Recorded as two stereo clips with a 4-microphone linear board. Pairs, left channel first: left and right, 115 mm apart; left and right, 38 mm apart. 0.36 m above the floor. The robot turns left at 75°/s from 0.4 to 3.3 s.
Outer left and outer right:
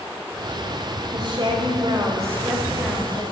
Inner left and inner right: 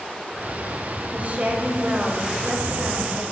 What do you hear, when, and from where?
1.1 s a woman speaking: 60° right, 2.0 m; by 3.2 s 140° left, 2.0 m